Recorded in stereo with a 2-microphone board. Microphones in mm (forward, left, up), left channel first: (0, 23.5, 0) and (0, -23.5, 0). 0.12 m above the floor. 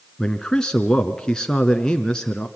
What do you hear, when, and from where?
0.2 s a man speaking: 15° left (ahead or behind), 1.2 m